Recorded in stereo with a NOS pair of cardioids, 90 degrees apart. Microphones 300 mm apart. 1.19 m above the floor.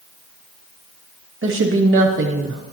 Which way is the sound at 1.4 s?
40° right.